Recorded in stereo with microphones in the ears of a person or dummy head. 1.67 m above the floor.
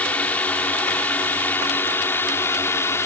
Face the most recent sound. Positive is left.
turn(degrees=15)  # may be behind; listen again after turning